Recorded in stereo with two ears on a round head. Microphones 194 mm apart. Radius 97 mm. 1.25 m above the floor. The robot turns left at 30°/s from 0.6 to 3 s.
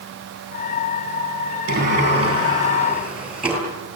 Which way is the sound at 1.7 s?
135° right.